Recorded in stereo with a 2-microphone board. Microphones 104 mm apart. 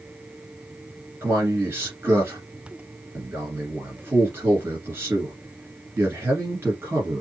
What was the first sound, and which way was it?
A man speaking, 25° right (ahead or behind).